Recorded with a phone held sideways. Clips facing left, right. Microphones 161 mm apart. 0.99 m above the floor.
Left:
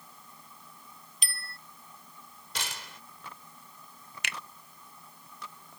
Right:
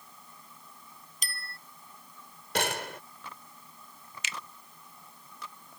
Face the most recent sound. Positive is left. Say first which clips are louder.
# left 1 dB
turn(degrees=60)  # may be behind; listen again after turning